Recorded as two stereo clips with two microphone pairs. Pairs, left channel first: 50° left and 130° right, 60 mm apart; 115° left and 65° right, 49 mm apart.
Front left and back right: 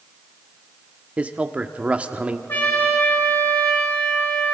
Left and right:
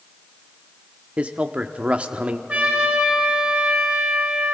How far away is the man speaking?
About 1.0 m.